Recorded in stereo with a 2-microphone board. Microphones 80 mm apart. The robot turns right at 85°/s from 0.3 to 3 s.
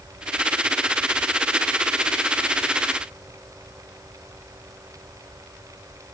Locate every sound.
Only background noise.